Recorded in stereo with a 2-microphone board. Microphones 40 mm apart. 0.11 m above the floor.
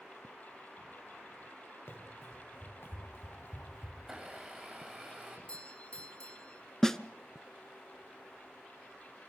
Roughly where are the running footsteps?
Left.